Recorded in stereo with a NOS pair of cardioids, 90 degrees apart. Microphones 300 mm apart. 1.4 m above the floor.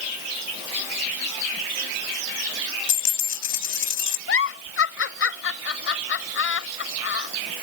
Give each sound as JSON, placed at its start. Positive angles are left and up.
{"t": 2.9, "sound": "a dropped coin", "azimuth_deg": 65}
{"t": 4.3, "sound": "a giggle", "azimuth_deg": 45}